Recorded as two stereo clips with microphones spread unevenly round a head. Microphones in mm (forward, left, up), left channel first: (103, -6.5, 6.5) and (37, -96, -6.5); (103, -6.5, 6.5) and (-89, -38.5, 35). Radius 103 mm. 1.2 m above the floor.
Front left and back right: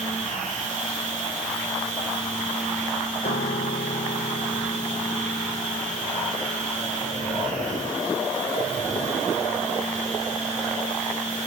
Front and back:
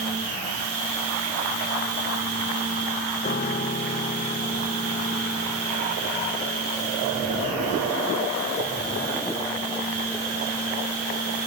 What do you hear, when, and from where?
0.0 s a machine running: 165° right, 3 m
3.2 s a piano: 65° left, 0.8 m